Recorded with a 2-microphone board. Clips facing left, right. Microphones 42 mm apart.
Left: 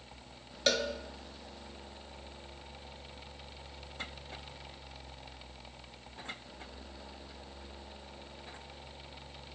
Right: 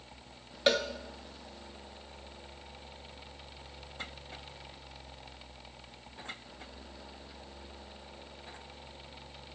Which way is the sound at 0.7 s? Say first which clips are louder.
Right 3 dB; 15° right (ahead or behind).